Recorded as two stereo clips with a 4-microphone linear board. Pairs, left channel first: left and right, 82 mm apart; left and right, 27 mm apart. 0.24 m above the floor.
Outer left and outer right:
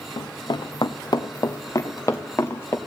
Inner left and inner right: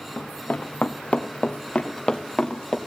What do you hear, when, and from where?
0.2 s running footsteps: 75° left (ahead or behind), 1.1 m; by 2.8 s 25° left (ahead or behind), 1.8 m